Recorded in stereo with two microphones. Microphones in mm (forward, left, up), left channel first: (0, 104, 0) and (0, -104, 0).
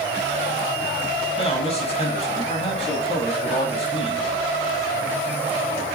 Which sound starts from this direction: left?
A man speaking, at 1.4 s.